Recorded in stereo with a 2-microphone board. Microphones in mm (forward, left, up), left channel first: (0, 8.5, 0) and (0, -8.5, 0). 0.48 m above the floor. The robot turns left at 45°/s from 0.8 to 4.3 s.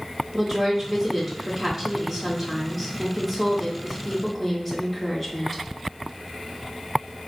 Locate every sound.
0.3 s a woman speaking: 40° right, 1.2 m; by 5.6 s 160° left, 1.2 m